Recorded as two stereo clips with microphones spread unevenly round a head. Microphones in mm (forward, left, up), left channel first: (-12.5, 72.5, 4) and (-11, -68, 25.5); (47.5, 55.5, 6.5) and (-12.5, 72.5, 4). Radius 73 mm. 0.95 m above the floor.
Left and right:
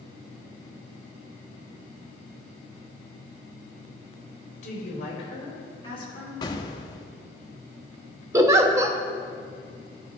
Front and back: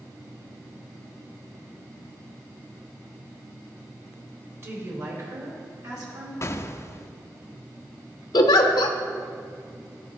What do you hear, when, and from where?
4.6 s a woman speaking: 125° left, 2.5 m; by 6.3 s 150° left, 4.5 m
6.4 s an explosion: 25° left, 0.6 m
8.3 s a giggle: 15° right, 0.6 m